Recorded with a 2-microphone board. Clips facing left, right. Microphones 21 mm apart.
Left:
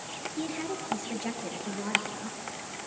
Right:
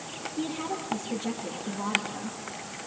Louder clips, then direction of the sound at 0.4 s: Right 2 dB; 30° left (ahead or behind).